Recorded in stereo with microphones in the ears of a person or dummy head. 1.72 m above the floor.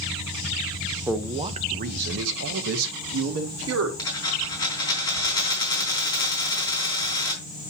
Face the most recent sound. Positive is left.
turn(degrees=20)  # may be behind; listen again after turning